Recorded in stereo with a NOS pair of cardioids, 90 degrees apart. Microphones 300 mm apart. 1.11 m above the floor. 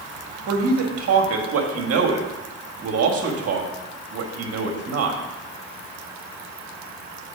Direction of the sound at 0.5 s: 55° right.